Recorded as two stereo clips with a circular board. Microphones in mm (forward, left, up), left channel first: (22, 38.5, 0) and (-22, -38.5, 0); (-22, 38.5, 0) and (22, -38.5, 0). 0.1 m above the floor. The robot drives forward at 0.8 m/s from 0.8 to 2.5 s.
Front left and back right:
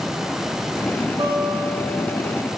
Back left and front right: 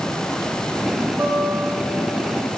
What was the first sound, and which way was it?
A guitar, 115° right.